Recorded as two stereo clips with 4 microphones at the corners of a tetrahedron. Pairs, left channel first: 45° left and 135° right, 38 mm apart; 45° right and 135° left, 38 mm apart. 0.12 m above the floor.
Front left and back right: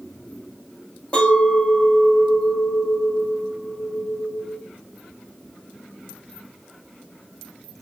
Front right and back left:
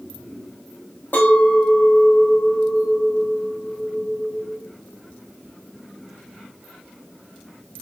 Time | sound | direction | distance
1.1 | a clink | 15° right | 2.5 m